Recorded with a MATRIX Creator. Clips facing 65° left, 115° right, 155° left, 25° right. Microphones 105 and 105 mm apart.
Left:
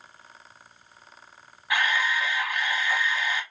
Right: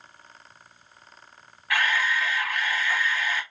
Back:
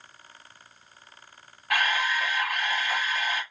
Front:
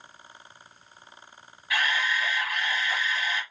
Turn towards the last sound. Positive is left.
turn(degrees=135)